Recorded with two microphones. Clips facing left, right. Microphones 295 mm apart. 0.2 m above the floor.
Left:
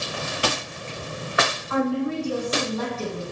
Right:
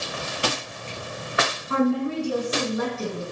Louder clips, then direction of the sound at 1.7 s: Right 2 dB; 35° right (ahead or behind).